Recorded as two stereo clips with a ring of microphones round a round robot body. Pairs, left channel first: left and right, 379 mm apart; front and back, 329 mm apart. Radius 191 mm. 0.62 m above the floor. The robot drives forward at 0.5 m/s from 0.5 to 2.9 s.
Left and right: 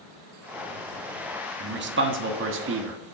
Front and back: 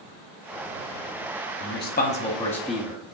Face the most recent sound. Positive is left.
turn(degrees=-100)